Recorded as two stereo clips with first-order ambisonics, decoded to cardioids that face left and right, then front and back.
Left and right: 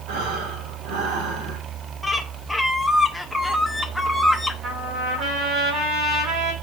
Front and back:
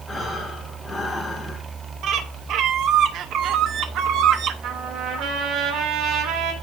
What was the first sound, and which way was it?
Breathing, 80° right.